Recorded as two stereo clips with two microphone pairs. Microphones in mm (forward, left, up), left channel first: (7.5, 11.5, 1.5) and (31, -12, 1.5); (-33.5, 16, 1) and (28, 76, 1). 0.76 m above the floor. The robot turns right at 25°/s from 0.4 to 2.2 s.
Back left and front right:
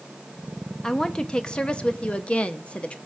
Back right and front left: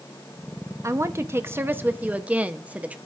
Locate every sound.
0.8 s a woman speaking: 70° left, 0.6 m; by 3.0 s 105° left, 0.6 m